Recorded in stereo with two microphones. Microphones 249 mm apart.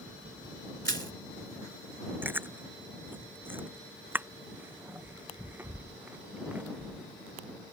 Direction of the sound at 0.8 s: 50° right (ahead or behind).